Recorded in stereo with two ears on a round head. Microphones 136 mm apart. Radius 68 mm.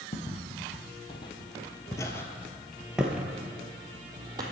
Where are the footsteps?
35° left (ahead or behind), 1.6 m; by 4.4 s 25° right (ahead or behind), 1.3 m.